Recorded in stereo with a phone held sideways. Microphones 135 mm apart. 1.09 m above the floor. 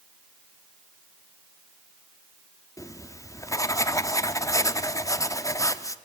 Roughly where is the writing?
Left.